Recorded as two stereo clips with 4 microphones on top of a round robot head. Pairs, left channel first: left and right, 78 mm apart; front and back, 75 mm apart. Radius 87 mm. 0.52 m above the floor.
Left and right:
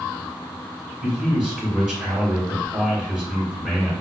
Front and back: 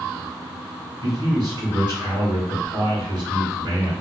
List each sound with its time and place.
1.0 s a man speaking: 170° right, 2.5 m